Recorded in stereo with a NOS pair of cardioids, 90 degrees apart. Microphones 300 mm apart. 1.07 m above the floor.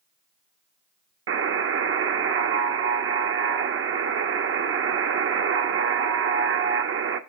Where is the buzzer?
45° right, 0.9 m.